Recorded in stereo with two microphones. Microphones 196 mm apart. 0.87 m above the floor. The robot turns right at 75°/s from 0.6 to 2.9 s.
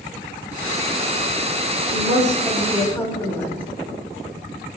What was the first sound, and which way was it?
A woman speaking, 65° right.